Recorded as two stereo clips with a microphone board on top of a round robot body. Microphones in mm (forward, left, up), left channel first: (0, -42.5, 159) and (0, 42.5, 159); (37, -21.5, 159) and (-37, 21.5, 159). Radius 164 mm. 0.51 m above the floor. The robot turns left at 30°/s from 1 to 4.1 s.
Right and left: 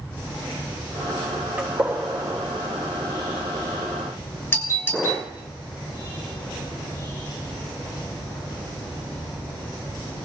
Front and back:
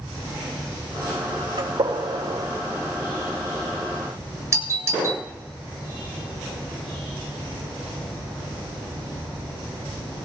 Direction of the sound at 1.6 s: 165° left.